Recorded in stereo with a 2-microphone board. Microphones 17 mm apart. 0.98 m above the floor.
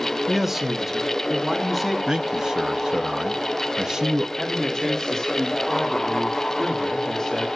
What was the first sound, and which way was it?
A man speaking, 25° right (ahead or behind).